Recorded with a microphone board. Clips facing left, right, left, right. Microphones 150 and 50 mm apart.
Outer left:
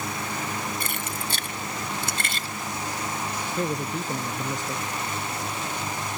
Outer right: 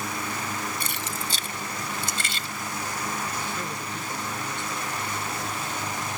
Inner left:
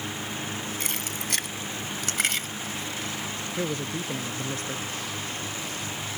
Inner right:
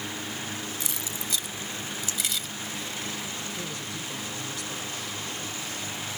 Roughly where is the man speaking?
Left.